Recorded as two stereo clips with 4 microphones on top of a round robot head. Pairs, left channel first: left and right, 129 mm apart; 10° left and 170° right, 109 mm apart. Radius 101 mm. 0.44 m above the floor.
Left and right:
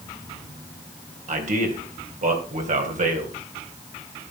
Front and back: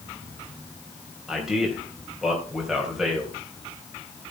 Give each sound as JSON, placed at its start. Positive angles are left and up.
{"t": 1.3, "sound": "a man speaking", "azimuth_deg": -85, "distance_m": 3.5}